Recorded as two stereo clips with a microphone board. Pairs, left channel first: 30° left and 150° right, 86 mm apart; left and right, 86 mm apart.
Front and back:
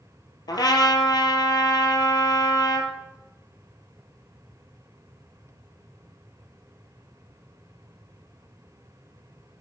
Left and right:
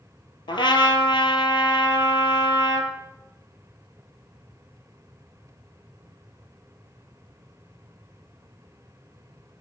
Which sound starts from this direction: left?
A trumpet, at 0.5 s.